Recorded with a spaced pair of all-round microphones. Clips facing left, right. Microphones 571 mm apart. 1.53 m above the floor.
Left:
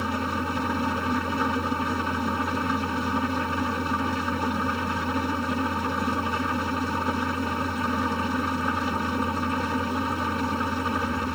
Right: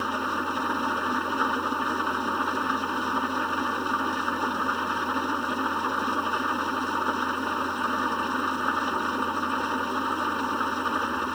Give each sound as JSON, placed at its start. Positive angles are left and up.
{"t": 0.0, "sound": "an engine running", "side_deg": 50}